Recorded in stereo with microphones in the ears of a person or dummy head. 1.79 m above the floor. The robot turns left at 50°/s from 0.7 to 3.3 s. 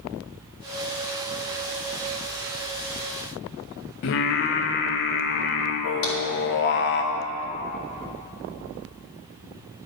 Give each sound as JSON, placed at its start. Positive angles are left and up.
{"t": 4.0, "sound": "singing", "side_deg": 45, "distance_m": 0.7}
{"t": 6.0, "sound": "tapping", "side_deg": 70, "distance_m": 3.5}